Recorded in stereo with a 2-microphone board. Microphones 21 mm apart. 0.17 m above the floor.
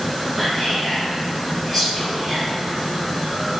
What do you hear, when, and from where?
0.3 s whispering: 10° right (ahead or behind), 1.9 m